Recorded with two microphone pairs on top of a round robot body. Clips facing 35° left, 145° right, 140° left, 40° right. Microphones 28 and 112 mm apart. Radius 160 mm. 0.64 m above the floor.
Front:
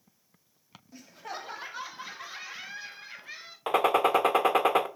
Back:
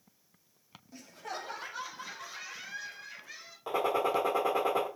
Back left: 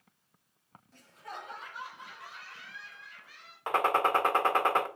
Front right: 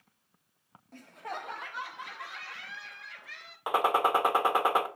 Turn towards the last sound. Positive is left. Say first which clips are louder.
# front 6 dB, front right 1 dB
turn(degrees=40)